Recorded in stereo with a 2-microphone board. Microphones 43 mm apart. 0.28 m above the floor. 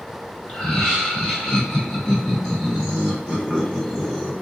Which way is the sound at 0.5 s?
15° left (ahead or behind).